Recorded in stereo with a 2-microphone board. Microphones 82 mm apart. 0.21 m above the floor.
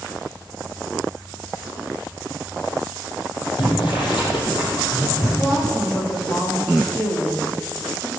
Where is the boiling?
80° left, 4 m.